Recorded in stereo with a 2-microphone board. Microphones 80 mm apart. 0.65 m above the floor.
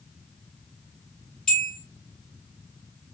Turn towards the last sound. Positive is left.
turn(degrees=10)  # may be behind; listen again after turning